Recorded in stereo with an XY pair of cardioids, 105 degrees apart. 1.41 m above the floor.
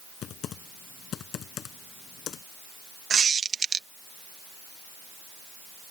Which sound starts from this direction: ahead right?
A squeak, at 3.1 s.